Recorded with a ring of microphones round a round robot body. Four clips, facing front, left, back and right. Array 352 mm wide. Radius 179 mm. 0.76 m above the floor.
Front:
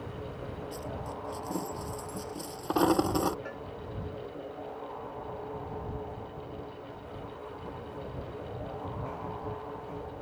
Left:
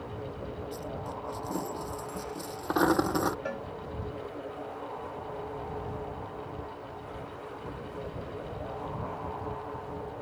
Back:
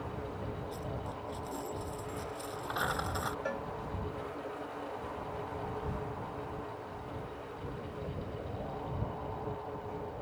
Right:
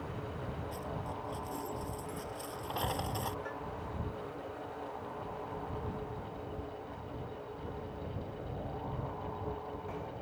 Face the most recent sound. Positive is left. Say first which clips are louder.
# left 5 dB, back 4 dB
turn(degrees=115)